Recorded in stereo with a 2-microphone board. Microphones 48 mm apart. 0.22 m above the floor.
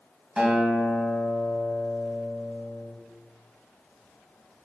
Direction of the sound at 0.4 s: 15° right (ahead or behind).